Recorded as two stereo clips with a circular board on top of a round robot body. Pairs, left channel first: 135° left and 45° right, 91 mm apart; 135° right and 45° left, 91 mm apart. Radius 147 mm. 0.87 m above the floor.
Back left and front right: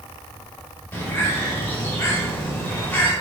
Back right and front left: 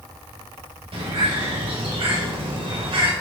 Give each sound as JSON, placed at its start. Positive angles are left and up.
{"t": 0.9, "sound": "a bird", "azimuth_deg": 65, "distance_m": 5.0}